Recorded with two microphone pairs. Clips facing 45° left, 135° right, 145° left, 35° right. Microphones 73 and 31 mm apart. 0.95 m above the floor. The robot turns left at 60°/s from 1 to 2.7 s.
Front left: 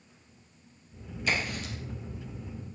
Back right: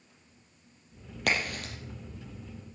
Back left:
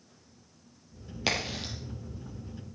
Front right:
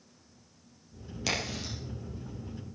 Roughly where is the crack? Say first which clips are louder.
Back right 1 dB, back left 2 dB; behind right.